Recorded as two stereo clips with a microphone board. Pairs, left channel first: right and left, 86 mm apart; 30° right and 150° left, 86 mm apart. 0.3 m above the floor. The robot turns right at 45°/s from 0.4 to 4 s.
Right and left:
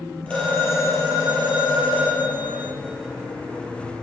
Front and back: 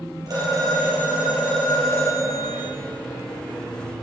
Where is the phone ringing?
165° right, 5 m; by 2.7 s 60° right, 5 m.